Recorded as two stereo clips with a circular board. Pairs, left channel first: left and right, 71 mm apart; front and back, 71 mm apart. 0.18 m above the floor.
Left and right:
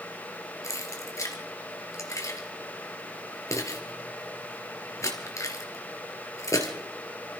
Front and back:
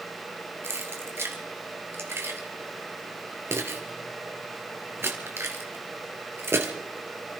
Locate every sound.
0.6 s keys jangling: 130° left, 2.5 m